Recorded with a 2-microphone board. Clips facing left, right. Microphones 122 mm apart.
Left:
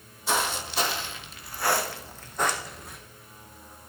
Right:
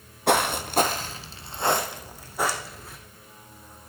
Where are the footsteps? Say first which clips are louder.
Right 6 dB; 65° right (ahead or behind), 1.1 m; by 3.0 s centre (ahead or behind), 2 m.